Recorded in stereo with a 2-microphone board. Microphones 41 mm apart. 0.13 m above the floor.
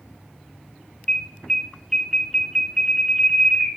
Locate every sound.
1.1 s an alarm: 5° left (ahead or behind), 0.8 m